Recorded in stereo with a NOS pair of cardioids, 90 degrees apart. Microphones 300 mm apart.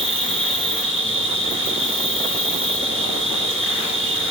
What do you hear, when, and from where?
0.0 s an insect: 45° right, 3 m